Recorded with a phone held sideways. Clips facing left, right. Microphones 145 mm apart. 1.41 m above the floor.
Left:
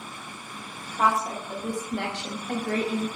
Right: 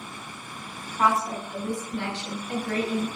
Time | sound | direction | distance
0.8 | a woman speaking | 65° left (ahead or behind) | 1.2 m